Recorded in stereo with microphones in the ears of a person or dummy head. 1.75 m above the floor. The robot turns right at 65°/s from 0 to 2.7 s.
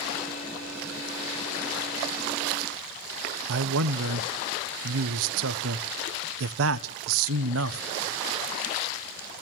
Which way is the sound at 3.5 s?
70° right (ahead or behind).